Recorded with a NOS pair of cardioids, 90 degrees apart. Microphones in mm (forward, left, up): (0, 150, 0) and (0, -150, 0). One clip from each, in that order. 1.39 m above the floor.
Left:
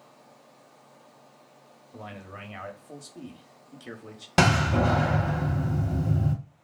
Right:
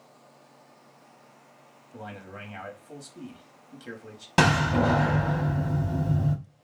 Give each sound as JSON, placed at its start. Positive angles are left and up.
{"t": 1.9, "sound": "a man speaking", "azimuth_deg": 5, "distance_m": 0.9}
{"t": 4.4, "sound": "a door slam", "azimuth_deg": 10, "distance_m": 0.9}